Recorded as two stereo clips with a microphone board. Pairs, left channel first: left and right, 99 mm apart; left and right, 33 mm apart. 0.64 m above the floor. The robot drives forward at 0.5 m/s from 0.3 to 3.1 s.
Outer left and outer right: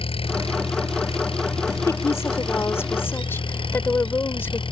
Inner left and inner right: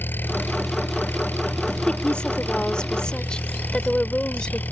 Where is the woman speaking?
30° left (ahead or behind); by 4.6 s 25° left (ahead or behind).